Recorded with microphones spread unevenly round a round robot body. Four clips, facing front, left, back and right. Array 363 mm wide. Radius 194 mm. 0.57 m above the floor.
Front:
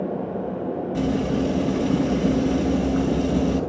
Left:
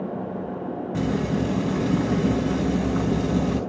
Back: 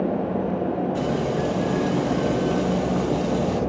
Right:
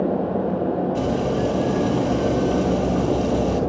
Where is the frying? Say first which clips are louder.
Right 3 dB, front 1 dB; 70° left, 4.5 m.